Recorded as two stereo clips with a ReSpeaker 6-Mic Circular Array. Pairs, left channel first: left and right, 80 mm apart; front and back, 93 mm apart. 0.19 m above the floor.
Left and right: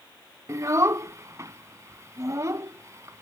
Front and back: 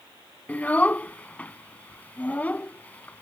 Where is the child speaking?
65° right.